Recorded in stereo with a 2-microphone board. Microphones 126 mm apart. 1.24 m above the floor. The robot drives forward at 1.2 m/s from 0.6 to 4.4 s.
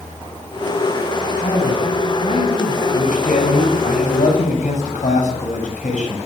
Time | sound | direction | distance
1.4 | a man speaking | 55° left (ahead or behind) | 10 m
2.9 | a man speaking | 85° left | 9.5 m